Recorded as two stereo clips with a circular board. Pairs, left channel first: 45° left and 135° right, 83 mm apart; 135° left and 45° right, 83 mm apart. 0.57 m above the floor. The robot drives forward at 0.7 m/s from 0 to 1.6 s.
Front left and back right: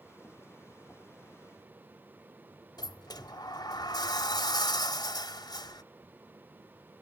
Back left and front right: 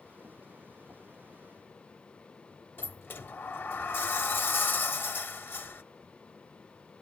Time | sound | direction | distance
2.8 | a sliding door | 75° left | 0.5 m